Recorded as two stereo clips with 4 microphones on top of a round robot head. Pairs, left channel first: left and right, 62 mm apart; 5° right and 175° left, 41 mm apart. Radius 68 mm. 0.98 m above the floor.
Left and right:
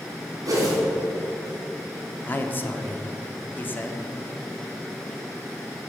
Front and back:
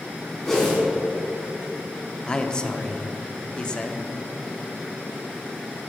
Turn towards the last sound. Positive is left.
turn(degrees=55)